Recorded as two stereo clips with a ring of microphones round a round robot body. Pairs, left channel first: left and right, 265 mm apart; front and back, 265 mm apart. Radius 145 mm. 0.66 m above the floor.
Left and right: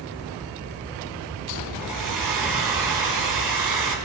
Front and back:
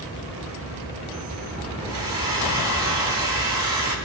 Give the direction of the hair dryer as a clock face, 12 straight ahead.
3 o'clock.